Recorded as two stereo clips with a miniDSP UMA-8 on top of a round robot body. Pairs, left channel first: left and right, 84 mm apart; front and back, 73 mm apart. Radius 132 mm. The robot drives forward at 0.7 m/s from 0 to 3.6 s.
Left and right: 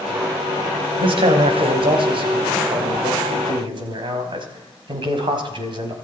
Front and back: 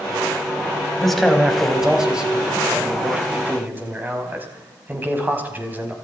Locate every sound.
1.0 s a man speaking: 85° right, 3.5 m; by 6.0 s 115° right, 4 m